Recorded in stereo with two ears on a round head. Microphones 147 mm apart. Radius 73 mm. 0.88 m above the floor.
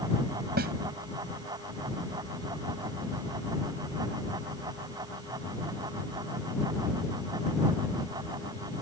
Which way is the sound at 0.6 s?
65° right (ahead or behind).